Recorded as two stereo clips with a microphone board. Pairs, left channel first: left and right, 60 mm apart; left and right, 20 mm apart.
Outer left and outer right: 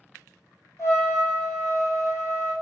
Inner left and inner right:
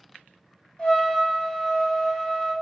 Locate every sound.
0.8 s a trumpet: 55° left (ahead or behind), 1.2 m